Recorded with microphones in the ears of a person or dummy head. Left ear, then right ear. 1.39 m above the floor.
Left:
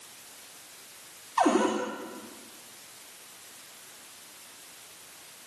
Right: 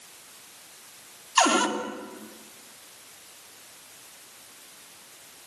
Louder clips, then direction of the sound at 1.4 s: Right 3 dB; 65° right (ahead or behind).